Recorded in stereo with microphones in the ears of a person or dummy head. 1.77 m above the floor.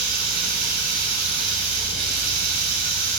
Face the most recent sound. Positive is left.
turn(degrees=-55)  # may be behind; listen again after turning